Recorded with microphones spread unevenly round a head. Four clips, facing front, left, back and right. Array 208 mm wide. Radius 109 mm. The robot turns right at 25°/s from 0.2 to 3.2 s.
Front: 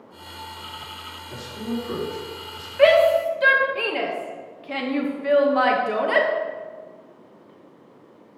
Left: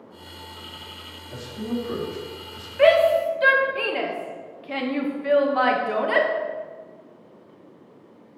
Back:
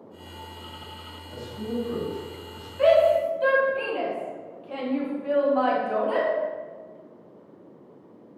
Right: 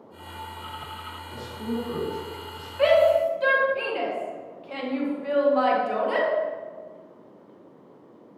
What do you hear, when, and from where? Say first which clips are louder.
1.3 s a man speaking: left 2 dB, front 2 dB; 20° left, 4.5 m; by 2.7 s 55° left, 4.5 m
2.8 s a shout: left 2 dB, front 3 dB; 25° left, 2 m; by 6.3 s 35° left, 2 m